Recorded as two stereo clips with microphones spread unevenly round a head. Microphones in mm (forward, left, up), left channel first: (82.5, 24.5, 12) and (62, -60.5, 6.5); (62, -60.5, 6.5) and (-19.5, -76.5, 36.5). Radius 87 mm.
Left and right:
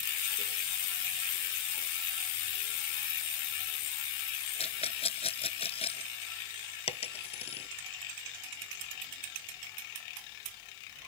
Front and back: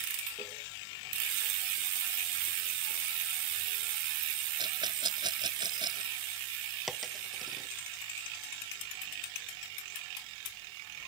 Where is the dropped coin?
105° left.